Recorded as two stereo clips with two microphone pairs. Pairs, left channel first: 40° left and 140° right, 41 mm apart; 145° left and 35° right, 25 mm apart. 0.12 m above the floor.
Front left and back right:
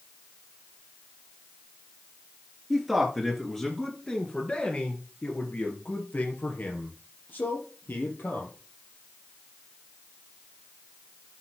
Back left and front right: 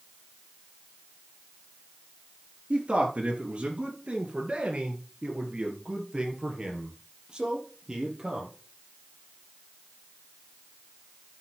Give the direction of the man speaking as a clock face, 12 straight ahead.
2 o'clock.